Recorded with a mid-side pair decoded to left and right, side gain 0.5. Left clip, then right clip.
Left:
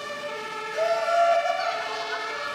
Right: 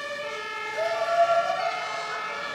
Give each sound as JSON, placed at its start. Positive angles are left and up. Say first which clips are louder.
{"t": 0.7, "sound": "laughter", "louder": "left 1 dB", "azimuth_deg": 20, "distance_m": 1.5}